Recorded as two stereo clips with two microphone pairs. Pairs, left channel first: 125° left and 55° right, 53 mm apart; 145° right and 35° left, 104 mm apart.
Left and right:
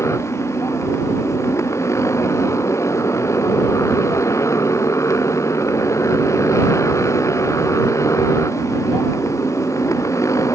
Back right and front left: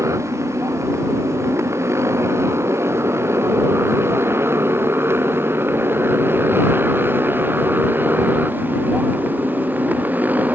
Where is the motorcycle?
100° left; by 10.5 s 110° left.